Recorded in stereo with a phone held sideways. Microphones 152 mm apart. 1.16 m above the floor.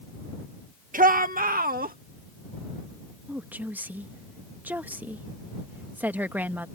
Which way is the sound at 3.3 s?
10° right (ahead or behind).